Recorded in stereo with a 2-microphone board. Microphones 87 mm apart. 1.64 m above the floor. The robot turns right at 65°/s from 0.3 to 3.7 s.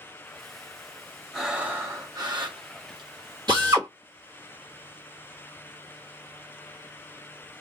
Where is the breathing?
Straight behind, 1.0 m; by 3.1 s 65° right, 1.0 m.